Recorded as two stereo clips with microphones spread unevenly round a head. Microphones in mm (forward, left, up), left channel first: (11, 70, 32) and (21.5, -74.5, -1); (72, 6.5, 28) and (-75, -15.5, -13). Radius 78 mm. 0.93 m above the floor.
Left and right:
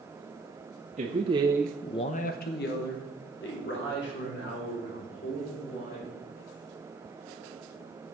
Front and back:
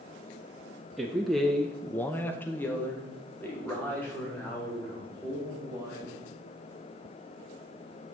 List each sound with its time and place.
1.0 s a man speaking: 95° right, 1.3 m; by 6.2 s 90° left, 6 m